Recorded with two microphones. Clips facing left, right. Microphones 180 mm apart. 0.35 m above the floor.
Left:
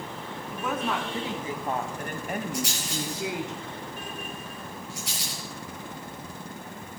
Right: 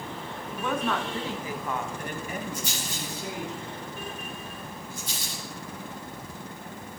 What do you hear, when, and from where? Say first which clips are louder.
0.5 s a woman speaking: right 1 dB; centre (ahead or behind), 3 m; by 3.5 s 70° left (ahead or behind), 3 m
2.5 s a rattle: left 4 dB; 65° left (ahead or behind), 7.5 m